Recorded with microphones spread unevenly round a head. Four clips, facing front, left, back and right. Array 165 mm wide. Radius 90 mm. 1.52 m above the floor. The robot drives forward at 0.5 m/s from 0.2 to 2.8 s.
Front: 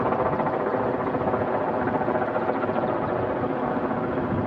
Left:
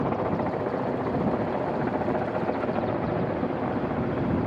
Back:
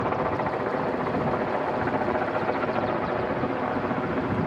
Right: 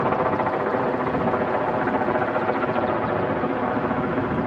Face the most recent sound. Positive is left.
turn(degrees=-70)